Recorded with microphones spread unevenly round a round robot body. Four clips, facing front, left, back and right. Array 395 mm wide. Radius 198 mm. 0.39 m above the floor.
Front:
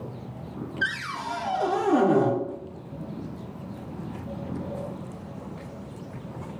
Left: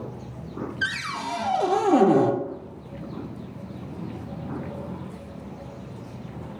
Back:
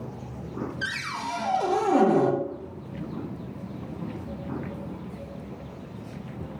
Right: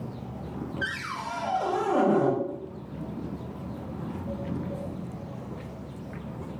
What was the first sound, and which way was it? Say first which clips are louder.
A cupboard door: left 5 dB, front 2 dB; 85° left.